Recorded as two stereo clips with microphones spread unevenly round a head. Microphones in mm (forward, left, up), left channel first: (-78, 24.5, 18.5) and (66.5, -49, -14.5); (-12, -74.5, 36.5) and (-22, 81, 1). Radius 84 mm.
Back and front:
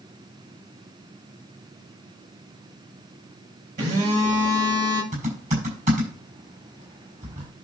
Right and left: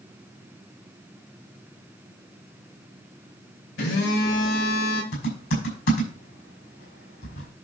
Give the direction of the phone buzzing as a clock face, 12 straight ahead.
2 o'clock.